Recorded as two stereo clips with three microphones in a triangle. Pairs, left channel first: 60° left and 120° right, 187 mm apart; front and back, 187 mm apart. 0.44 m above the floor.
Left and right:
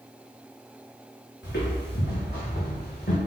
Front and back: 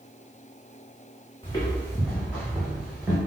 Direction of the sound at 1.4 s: 65° left.